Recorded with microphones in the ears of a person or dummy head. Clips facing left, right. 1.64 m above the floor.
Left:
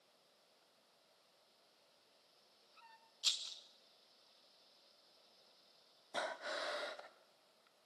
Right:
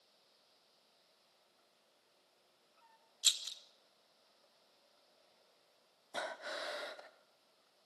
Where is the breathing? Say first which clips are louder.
Even; centre (ahead or behind), 1.0 m.